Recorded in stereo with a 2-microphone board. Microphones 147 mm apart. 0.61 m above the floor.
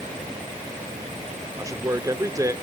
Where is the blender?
I don't hear a blender.